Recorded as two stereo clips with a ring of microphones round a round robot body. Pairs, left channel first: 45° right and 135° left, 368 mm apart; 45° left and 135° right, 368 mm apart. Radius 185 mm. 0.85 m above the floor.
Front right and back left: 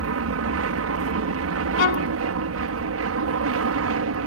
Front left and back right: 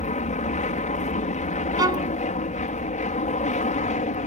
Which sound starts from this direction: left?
An aircraft, at 0.0 s.